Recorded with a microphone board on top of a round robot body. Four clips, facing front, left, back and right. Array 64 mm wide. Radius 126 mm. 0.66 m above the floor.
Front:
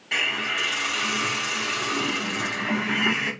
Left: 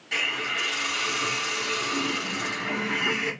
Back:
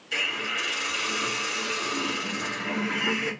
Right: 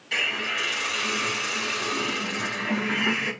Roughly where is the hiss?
Ahead.